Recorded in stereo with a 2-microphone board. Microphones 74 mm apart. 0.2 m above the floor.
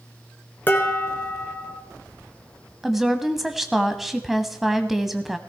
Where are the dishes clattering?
25° left (ahead or behind), 1.8 m.